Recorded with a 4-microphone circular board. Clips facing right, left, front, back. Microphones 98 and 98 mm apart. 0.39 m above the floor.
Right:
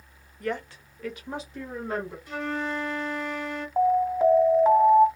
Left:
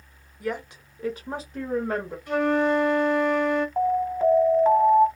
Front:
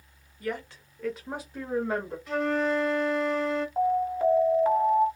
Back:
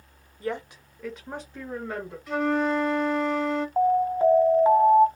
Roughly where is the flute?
Left.